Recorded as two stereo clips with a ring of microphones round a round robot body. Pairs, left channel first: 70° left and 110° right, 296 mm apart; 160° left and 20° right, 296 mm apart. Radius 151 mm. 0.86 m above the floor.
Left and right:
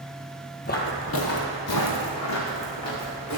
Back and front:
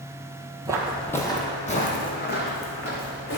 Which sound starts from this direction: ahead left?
Footsteps, at 0.7 s.